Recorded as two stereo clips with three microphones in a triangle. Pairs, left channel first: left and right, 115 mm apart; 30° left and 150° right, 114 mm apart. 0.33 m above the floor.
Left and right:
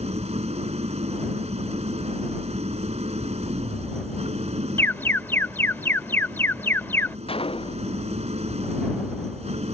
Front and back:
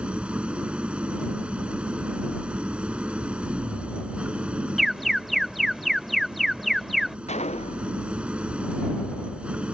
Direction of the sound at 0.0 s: 70° right.